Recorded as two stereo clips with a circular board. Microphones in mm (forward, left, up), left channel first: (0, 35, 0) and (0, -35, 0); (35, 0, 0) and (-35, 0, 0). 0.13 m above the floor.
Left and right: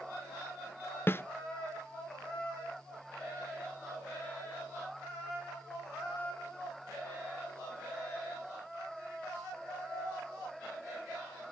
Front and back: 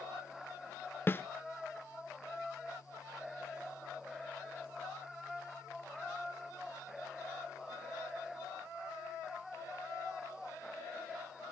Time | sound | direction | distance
1.1 | a snare drum | 50° left | 0.8 m